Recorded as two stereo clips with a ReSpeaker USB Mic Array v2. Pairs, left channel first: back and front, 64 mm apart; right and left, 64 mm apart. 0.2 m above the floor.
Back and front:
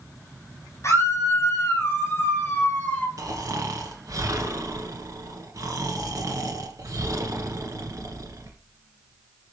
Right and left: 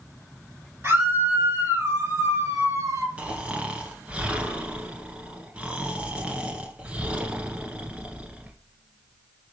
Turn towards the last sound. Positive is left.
turn(degrees=20)